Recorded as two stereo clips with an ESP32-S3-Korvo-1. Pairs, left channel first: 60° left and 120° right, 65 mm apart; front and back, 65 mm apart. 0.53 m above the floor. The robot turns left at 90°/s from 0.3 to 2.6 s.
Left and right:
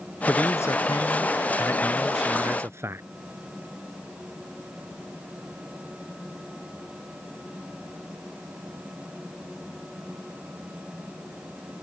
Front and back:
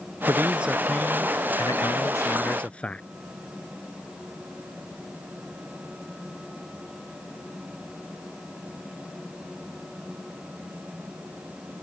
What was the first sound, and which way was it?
A man speaking, 135° left.